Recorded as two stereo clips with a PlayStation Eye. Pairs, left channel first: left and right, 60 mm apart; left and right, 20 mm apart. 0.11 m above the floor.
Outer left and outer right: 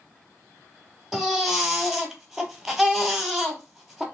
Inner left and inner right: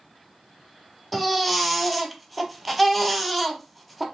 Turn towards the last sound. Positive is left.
turn(degrees=-5)  # may be behind; listen again after turning